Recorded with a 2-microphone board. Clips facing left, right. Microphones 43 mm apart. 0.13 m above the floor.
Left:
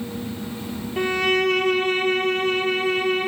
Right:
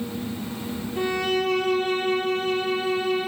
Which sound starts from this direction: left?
A violin, at 1.0 s.